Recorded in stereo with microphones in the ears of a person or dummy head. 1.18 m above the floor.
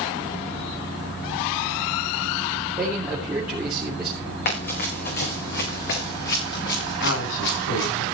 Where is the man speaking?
10° right (ahead or behind), 3.5 m.